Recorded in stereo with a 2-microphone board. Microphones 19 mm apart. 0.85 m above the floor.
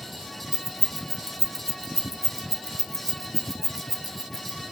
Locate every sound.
0.5 s keys jangling: 20° right (ahead or behind), 0.5 m